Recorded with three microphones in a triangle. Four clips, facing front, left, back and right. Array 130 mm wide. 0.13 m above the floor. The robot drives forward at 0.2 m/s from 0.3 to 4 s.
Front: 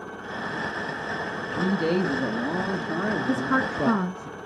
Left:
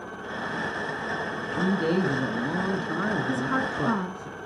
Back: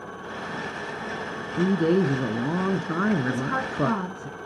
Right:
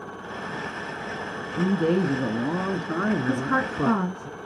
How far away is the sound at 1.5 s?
About 1.1 m.